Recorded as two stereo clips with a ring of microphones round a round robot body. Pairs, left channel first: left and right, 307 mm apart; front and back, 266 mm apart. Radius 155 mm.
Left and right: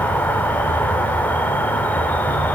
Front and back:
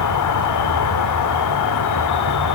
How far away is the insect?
About 1.1 m.